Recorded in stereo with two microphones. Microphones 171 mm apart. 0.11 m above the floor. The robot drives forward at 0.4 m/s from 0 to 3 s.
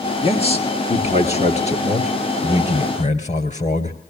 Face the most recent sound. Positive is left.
turn(degrees=45)  # may be behind; listen again after turning